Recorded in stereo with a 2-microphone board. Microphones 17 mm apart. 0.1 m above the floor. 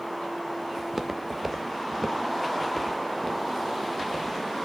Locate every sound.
0.8 s footsteps: 25° right (ahead or behind), 0.9 m; by 4.3 s 35° left (ahead or behind), 2.5 m